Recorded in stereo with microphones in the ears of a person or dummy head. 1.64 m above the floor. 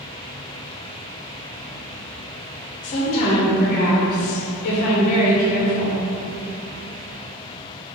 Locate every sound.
2.8 s a woman speaking: 35° left (ahead or behind), 0.7 m